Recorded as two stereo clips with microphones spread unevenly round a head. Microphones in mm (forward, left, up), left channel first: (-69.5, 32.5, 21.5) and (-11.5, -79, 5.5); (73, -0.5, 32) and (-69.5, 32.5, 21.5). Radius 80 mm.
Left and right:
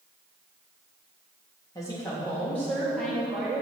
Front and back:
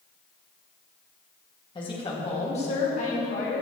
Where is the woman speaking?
45° left, 2.0 m; by 3.6 s 20° left, 2.5 m.